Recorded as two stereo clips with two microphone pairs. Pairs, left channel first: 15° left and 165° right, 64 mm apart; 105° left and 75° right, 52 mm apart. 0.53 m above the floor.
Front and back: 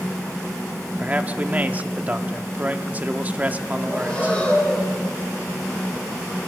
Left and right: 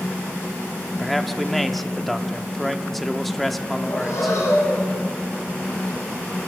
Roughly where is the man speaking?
Behind.